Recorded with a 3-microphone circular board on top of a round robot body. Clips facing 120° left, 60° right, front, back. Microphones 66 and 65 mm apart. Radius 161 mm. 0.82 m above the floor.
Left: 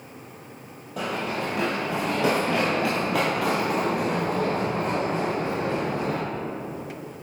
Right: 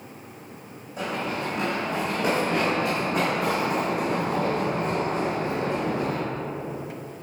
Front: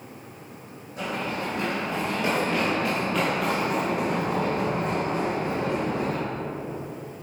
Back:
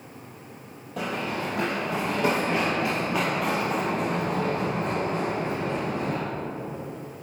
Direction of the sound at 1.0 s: 150° left.